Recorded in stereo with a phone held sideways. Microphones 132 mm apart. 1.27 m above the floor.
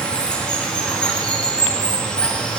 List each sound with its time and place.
0.0 s running water: 10° left (ahead or behind), 0.8 m